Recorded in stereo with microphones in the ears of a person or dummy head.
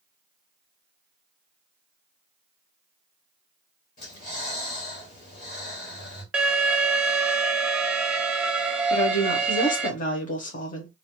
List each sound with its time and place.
4.0 s breathing: 45° left (ahead or behind), 1.9 m
6.3 s an alarm: 10° right (ahead or behind), 0.5 m
8.9 s a woman speaking: 40° left (ahead or behind), 1.0 m